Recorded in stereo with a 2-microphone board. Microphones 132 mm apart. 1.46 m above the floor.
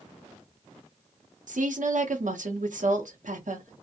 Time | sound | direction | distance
1.5 | a woman speaking | 75° right (ahead or behind) | 0.7 m